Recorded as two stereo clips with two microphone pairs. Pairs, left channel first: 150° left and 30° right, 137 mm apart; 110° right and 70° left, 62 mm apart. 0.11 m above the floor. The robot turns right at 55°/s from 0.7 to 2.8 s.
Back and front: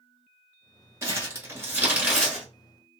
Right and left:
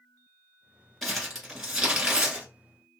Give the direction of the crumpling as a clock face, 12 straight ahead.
1 o'clock.